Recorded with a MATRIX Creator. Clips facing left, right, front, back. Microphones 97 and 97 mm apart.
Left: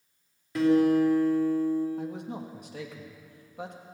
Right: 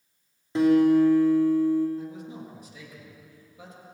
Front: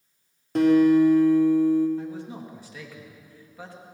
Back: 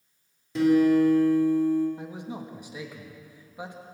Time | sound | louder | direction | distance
0.6 | a guitar | right 3 dB, front 3 dB | 25° right | 3.5 m
2.0 | a man speaking | left 2 dB, front 3 dB | 110° left | 2 m